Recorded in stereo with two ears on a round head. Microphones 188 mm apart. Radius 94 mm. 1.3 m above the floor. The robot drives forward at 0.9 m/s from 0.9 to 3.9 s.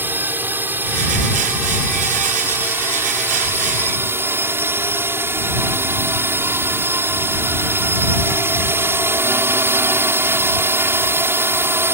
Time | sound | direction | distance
0.0 | a drone | 10° right (ahead or behind) | ?